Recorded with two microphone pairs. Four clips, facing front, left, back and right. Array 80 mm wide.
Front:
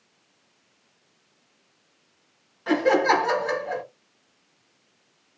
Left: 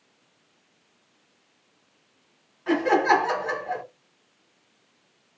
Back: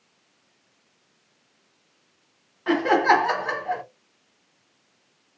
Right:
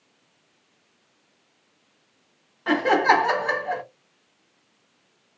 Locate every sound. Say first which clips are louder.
2.7 s laughter: right 1 dB, back 1 dB; 125° right, 1.1 m